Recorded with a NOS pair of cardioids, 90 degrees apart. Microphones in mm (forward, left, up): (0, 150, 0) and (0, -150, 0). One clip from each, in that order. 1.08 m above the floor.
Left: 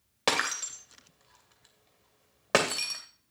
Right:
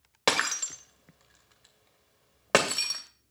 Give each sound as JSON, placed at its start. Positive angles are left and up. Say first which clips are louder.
{"t": 0.3, "sound": "breaking glass", "louder": "right 2 dB", "azimuth_deg": -10, "distance_m": 2.0}